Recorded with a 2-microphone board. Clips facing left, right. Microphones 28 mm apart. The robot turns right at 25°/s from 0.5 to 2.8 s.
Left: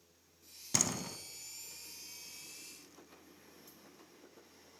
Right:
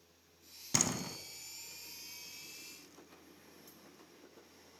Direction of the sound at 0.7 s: 5° right (ahead or behind).